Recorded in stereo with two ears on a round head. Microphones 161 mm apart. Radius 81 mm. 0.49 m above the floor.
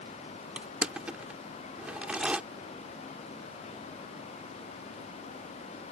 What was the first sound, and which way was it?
Crushing, 5° right (ahead or behind).